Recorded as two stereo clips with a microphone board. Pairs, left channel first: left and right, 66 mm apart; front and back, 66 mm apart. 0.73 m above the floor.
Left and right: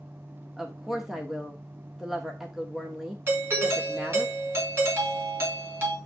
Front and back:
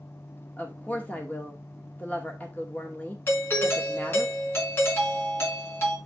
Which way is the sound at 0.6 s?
15° right.